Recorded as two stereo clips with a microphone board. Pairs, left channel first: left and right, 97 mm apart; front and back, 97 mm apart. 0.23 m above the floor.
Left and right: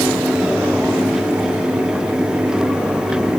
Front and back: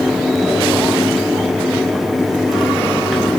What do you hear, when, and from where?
Only background noise.